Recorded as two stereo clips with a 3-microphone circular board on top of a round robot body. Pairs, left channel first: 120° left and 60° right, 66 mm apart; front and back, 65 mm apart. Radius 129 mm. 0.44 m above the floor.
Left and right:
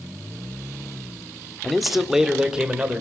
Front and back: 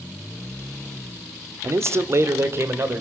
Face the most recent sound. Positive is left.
turn(degrees=-135)